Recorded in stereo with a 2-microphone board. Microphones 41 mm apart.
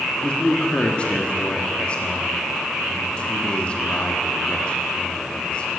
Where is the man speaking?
30° left (ahead or behind), 1.3 m.